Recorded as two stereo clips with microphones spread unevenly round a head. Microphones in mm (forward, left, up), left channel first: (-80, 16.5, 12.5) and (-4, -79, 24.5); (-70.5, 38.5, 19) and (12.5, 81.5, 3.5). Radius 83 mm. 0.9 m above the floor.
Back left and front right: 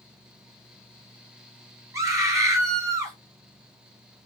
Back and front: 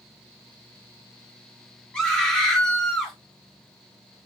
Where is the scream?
65° right, 0.9 m.